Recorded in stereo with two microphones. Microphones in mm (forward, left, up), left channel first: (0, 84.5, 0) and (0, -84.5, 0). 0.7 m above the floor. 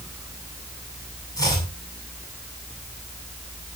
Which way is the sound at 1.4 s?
20° left (ahead or behind).